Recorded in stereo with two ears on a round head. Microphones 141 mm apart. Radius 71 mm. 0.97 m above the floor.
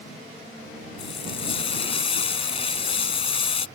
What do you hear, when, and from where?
1.0 s frying: 40° left (ahead or behind)